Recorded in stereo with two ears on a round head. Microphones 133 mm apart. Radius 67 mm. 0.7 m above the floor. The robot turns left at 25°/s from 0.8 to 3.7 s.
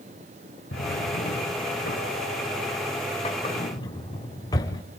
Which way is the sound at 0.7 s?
80° left.